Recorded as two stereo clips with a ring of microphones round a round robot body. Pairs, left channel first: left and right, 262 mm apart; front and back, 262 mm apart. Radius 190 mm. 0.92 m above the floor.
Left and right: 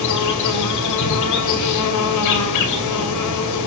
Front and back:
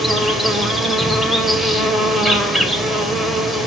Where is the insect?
90° left, 2.5 m.